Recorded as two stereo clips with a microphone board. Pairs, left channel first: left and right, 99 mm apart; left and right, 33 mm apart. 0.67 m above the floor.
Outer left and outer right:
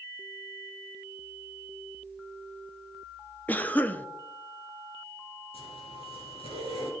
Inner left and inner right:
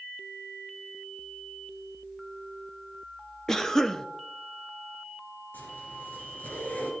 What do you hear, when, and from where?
3.5 s a cough: 15° left (ahead or behind), 0.7 m
5.5 s a zipper: 70° left (ahead or behind), 3 m